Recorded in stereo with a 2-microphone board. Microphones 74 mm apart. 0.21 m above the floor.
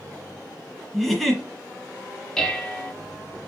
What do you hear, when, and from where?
0.9 s a giggle: 5° left (ahead or behind), 1.8 m
2.4 s dishes clattering: 10° left (ahead or behind), 0.7 m